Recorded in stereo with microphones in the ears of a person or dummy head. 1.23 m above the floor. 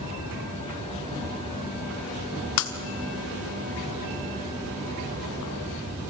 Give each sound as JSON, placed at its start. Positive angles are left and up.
{"t": 2.6, "sound": "breaking glass", "side_deg": 65, "distance_m": 1.4}